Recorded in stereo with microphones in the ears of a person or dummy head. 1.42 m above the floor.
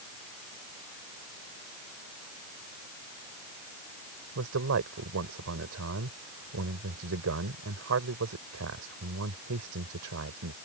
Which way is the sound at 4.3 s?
80° right.